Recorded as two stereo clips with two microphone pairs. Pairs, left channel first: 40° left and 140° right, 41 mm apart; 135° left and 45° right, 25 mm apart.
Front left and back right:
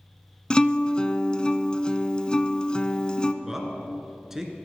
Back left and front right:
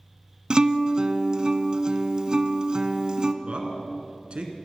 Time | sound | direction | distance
0.5 | a guitar | 10° right | 0.6 m
3.4 | a man speaking | 60° right | 1.6 m